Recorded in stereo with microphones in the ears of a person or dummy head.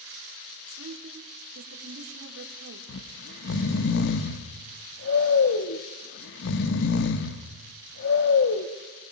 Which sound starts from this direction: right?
A woman speaking, at 0.7 s.